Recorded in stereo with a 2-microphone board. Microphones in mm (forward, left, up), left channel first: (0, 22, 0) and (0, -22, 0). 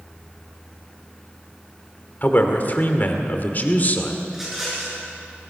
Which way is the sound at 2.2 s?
45° left (ahead or behind).